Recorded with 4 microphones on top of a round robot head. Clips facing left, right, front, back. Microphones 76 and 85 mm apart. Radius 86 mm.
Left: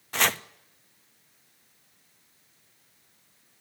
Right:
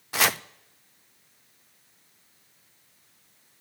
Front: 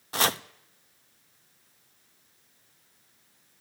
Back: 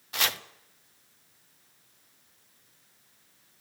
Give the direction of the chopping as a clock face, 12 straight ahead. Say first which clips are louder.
Right 1 dB, front 5 dB; 12 o'clock.